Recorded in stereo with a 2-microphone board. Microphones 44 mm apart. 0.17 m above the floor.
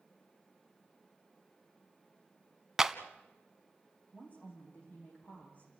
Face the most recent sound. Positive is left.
turn(degrees=35)  # may be behind; listen again after turning